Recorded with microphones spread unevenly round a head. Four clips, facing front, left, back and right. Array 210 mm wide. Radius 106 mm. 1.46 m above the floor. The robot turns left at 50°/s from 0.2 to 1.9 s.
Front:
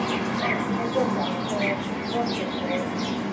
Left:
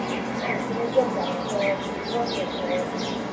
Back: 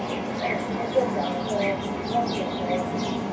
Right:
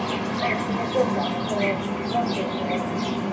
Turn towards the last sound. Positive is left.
turn(degrees=-125)